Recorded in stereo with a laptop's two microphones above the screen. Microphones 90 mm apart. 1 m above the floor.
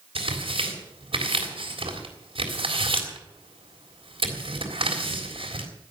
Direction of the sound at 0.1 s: 90° right.